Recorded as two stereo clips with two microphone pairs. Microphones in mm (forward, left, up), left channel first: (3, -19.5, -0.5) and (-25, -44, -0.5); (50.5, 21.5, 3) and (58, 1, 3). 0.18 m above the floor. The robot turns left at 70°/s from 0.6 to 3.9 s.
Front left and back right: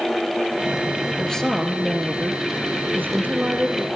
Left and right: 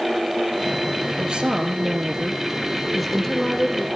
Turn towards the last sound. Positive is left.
turn(degrees=150)